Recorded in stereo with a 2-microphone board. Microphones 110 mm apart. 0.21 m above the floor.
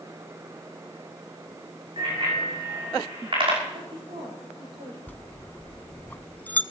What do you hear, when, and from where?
2.0 s a bicycle bell: 50° right (ahead or behind), 8 m
3.7 s a woman speaking: 55° right (ahead or behind), 6 m
5.1 s a bell: 15° left (ahead or behind), 0.5 m